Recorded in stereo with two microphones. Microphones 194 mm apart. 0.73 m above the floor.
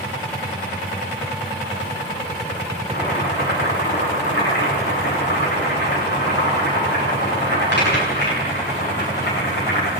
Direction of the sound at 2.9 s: 60° left (ahead or behind).